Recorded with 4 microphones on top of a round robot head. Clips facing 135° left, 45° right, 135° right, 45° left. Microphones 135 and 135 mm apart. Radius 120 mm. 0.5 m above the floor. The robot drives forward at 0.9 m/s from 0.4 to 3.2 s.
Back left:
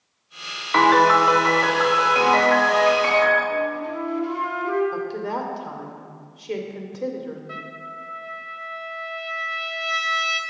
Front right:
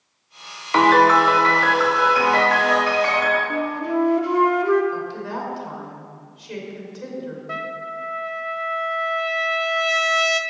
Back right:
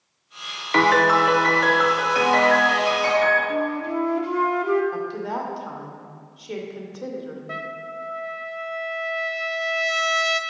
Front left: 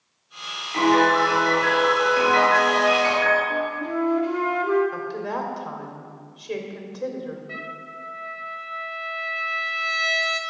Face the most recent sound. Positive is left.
turn(degrees=-90)